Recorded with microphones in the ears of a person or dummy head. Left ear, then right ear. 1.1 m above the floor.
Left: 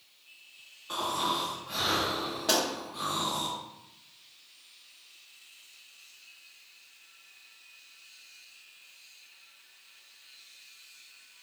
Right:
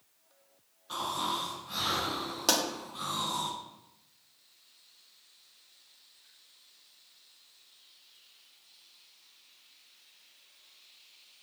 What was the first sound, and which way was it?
Snoring, 15° left (ahead or behind).